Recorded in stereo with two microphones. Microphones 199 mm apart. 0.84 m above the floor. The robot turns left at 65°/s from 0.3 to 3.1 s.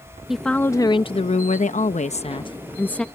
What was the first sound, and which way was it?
A woman speaking, 175° right.